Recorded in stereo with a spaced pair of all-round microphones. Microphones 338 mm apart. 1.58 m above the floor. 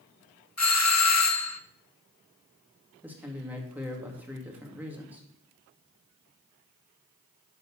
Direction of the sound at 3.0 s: 5° right (ahead or behind).